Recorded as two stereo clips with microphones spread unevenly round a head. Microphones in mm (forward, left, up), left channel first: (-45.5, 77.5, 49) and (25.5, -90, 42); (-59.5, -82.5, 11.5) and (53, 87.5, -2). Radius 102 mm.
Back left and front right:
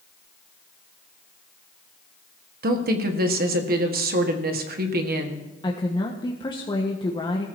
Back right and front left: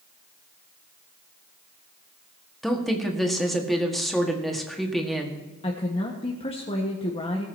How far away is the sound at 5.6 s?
About 1.5 m.